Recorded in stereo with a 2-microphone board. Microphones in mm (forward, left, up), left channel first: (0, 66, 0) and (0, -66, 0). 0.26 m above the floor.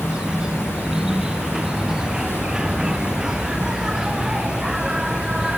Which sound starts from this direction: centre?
An insect, at 0.0 s.